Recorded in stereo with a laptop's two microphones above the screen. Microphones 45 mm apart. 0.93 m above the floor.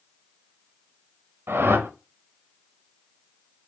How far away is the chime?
I don't hear a chime.